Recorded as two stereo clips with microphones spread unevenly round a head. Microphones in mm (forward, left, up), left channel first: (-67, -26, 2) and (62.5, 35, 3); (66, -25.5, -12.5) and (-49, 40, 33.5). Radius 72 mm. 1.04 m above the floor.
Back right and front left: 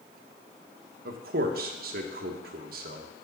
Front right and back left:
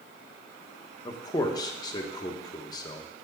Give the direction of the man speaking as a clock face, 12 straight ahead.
11 o'clock.